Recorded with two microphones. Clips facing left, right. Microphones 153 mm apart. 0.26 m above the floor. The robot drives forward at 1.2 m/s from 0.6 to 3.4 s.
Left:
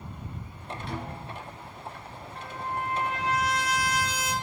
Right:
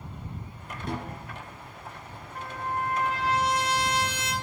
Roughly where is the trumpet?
Right.